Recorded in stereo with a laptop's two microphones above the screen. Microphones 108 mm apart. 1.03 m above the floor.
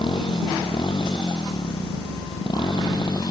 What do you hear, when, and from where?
0.0 s a motorcycle: 45° left (ahead or behind); by 3.3 s 40° left (ahead or behind)